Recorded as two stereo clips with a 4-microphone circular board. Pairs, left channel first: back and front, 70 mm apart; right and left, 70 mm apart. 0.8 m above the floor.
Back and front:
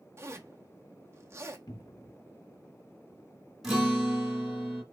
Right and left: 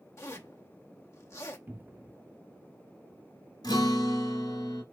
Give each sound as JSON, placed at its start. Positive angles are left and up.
{"t": 0.2, "sound": "a zipper", "azimuth_deg": -50, "distance_m": 0.9}
{"t": 1.7, "sound": "a cupboard door", "azimuth_deg": 150, "distance_m": 0.6}
{"t": 3.6, "sound": "a guitar", "azimuth_deg": -85, "distance_m": 1.9}